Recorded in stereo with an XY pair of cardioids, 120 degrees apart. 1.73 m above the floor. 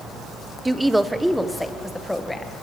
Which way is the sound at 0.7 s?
10° right.